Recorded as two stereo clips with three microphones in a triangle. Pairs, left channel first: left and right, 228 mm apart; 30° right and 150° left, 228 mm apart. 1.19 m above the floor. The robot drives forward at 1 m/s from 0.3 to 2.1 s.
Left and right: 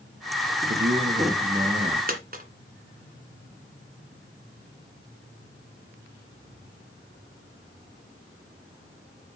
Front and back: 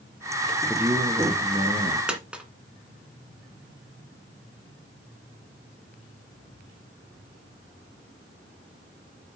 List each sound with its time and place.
0.7 s a man speaking: 125° right, 1.1 m; by 2.0 s 155° right, 2 m
2.1 s a dropped coin: 125° right, 1.7 m